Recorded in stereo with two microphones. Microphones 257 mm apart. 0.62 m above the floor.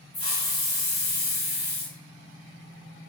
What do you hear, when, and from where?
0.1 s a hiss: 60° left (ahead or behind), 0.8 m